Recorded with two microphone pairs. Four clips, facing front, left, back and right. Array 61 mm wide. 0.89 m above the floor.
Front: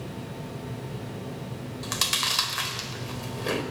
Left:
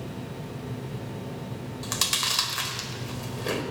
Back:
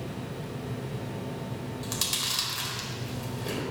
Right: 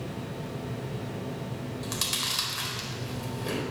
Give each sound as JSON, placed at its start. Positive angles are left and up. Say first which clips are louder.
{"t": 1.8, "sound": "chewing", "louder": "left 6 dB, front 8 dB", "azimuth_deg": 30, "distance_m": 4.0}